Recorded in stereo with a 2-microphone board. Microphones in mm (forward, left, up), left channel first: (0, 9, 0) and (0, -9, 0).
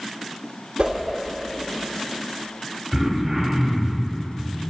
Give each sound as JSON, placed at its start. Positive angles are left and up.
{"t": 0.8, "sound": "a whoosh", "side_deg": -55, "distance_m": 0.6}
{"t": 2.9, "sound": "throat clearing", "side_deg": -25, "distance_m": 1.0}